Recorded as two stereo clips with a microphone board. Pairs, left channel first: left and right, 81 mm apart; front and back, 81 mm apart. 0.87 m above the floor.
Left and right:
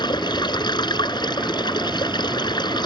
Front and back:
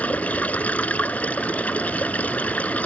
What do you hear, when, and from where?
0.0 s running water: 70° left